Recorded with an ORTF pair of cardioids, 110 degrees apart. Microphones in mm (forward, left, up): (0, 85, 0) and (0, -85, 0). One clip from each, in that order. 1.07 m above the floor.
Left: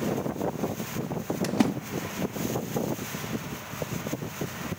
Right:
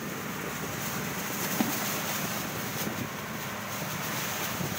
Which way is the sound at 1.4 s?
25° left.